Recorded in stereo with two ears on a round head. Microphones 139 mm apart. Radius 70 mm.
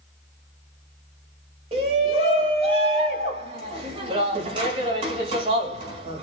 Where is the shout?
35° right (ahead or behind), 2 m.